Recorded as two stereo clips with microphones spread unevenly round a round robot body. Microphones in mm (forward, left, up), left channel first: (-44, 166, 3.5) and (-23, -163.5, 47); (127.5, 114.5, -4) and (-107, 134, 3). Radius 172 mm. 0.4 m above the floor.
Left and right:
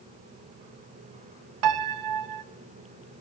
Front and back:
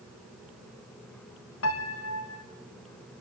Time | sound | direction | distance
1.6 | a piano | 50° right | 0.7 m